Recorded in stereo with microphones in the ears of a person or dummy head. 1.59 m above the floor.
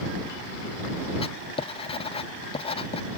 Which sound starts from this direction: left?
Writing, at 1.2 s.